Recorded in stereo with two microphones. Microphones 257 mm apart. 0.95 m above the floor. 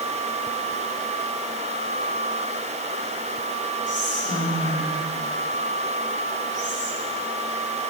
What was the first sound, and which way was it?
Whispering, 35° right (ahead or behind).